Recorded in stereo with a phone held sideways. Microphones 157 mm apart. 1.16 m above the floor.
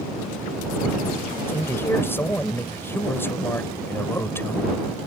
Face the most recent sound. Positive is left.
turn(degrees=15)  # may be behind; listen again after turning